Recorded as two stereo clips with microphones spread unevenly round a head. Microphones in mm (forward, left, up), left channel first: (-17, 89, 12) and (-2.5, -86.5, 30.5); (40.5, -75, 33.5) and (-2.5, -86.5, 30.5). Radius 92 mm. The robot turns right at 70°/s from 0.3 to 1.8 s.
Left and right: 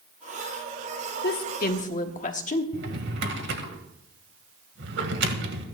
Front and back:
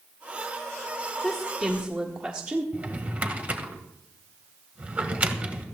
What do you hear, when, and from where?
1.2 s a woman speaking: 90° left, 1.4 m; by 2.6 s 130° left, 1.4 m
2.7 s a drawer: 110° right, 1.8 m